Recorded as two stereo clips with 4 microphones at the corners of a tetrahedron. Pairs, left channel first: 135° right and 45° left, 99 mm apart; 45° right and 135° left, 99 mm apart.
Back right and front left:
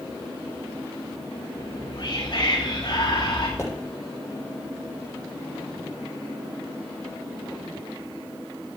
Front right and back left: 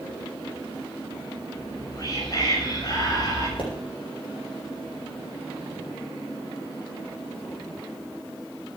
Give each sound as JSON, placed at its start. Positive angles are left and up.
{"t": 1.6, "sound": "whispering", "azimuth_deg": -95, "distance_m": 7.0}
{"t": 3.6, "sound": "a pop", "azimuth_deg": -75, "distance_m": 9.0}